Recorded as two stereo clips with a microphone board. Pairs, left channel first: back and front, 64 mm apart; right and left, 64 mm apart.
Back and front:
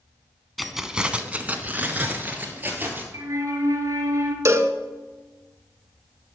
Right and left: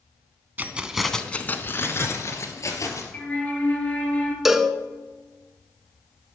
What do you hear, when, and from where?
0.6 s keys jangling: 90° left, 0.8 m; by 3.0 s 60° right, 2 m
3.1 s a flute: 25° right, 1.3 m
4.5 s a cowbell: 5° left, 0.6 m